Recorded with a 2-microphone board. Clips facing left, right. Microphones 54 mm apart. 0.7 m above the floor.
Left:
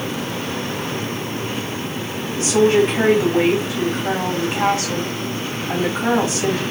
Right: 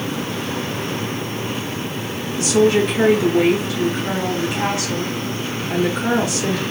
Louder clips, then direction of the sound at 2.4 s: Left 1 dB; 35° left (ahead or behind).